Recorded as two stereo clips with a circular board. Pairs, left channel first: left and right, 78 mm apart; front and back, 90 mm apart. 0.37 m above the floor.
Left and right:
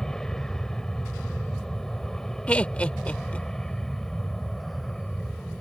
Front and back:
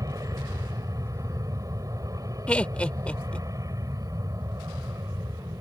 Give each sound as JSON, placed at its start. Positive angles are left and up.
{"t": 0.0, "sound": "an aircraft", "azimuth_deg": 165}
{"t": 2.5, "sound": "laughter", "azimuth_deg": 50}